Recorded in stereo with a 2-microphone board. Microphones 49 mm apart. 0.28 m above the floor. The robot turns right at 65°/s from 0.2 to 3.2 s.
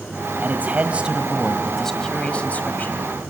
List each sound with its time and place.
0.4 s a man speaking: 80° right, 1.5 m; by 3.1 s 90° left, 1.5 m